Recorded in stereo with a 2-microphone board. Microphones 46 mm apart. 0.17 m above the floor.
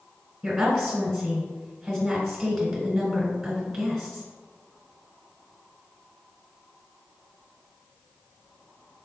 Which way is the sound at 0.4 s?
Centre (ahead or behind).